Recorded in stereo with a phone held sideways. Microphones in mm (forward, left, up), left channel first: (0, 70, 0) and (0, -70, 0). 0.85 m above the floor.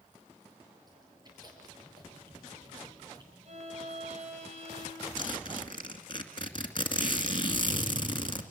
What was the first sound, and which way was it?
Chewing, 30° right (ahead or behind).